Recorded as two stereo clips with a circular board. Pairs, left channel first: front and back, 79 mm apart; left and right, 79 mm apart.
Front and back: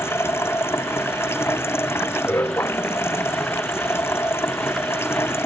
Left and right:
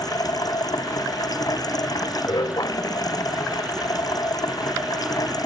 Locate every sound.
0.0 s running water: 55° left